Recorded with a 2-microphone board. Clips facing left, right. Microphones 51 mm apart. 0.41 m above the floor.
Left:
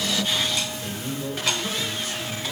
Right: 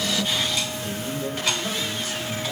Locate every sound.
0.8 s a man speaking: 10° left (ahead or behind), 2.0 m